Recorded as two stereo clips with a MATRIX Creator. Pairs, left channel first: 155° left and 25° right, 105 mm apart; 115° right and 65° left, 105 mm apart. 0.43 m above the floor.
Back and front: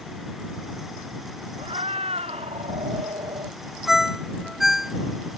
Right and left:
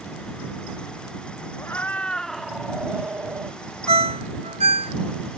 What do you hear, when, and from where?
1.6 s a cat meowing: 45° right; by 3.6 s 10° left
3.9 s a ringtone: 65° left